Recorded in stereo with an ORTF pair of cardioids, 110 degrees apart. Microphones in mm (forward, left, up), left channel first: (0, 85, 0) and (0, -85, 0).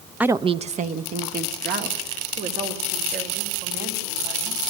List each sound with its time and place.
0.2 s a woman speaking: 5° right, 0.5 m; by 4.6 s 70° right, 5.5 m